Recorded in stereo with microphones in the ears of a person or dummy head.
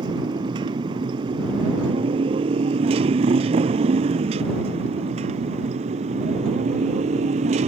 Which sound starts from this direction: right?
A motorcycle, at 0.0 s.